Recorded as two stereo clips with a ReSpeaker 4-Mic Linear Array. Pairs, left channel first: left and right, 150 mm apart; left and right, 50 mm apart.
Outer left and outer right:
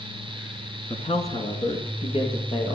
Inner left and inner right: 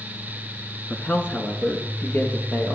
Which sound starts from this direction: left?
A man speaking, at 0.9 s.